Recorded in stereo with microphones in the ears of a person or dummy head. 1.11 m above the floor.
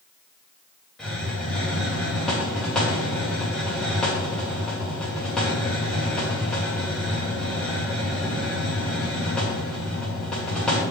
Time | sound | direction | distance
1.0 | a hiss | 5° left (ahead or behind) | 2 m